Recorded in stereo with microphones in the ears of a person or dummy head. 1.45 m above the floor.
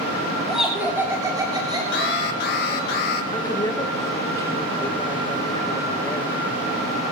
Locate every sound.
0.5 s laughter: centre (ahead or behind), 3 m; by 2.9 s 35° right (ahead or behind), 4.5 m
1.9 s an alarm: 50° left (ahead or behind), 1.5 m
3.3 s a woman speaking: 15° left (ahead or behind), 1.9 m